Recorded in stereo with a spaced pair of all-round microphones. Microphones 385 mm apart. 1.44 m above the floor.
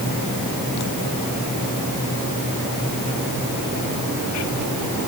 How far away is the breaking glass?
No breaking glass in this recording.